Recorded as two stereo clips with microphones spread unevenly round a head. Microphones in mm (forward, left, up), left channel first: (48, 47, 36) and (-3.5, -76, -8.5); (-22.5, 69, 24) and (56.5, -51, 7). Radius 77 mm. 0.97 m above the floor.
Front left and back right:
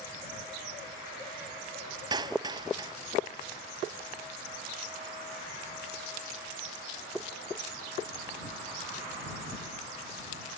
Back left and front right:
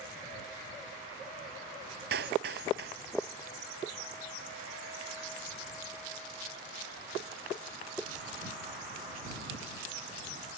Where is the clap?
55° right.